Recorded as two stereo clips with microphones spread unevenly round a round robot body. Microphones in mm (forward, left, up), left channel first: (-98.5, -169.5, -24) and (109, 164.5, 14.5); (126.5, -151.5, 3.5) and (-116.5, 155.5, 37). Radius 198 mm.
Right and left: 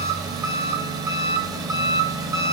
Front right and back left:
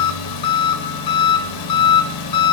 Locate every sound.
0.0 s an engine running: 25° right, 1.1 m